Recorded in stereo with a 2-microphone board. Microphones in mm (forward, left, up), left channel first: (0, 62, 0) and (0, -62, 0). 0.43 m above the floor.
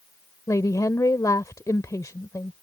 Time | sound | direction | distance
0.5 | a woman speaking | 30° left (ahead or behind) | ?